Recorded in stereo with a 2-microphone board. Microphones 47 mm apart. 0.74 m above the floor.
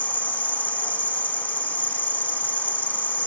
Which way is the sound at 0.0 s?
40° left (ahead or behind).